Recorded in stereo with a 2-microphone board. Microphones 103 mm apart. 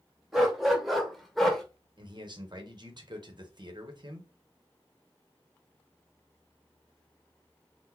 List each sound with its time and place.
0.3 s a dog barking: centre (ahead or behind), 1.3 m; by 1.6 s 5° left (ahead or behind), 1.0 m
2.0 s a man speaking: 45° right (ahead or behind), 0.9 m